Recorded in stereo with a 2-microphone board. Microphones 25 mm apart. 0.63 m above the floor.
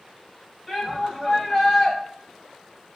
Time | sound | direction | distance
0.7 | a shout | 5° left (ahead or behind) | 2.5 m